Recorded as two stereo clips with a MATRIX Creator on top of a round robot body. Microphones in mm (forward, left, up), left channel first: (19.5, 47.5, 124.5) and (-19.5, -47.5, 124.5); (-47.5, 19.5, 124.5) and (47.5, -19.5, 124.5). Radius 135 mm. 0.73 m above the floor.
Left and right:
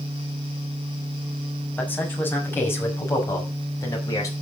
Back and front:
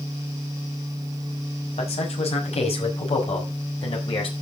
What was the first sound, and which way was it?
A man speaking, 140° left.